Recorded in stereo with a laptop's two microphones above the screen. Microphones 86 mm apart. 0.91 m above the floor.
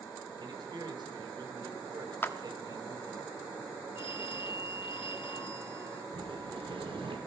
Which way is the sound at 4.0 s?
80° left.